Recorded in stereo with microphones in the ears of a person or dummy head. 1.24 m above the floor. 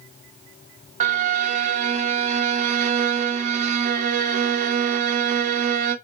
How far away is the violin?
About 0.6 m.